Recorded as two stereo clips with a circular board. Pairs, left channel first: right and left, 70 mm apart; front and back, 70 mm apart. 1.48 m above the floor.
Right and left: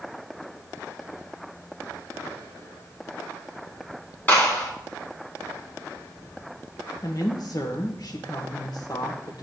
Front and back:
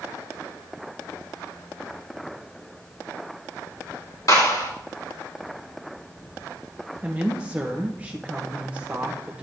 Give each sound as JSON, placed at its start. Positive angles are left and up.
{"t": 4.3, "sound": "a clap", "azimuth_deg": -30, "distance_m": 3.5}
{"t": 7.0, "sound": "a woman speaking", "azimuth_deg": -110, "distance_m": 1.1}